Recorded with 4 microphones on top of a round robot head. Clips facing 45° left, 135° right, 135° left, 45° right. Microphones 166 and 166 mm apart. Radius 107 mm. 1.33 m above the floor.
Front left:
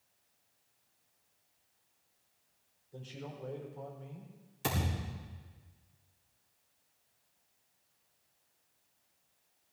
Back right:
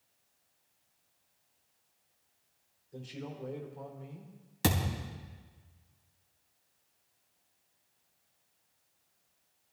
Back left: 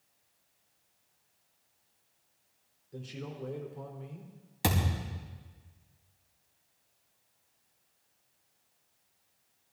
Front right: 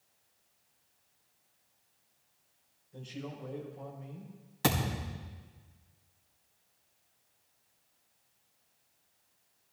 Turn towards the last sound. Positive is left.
turn(degrees=-150)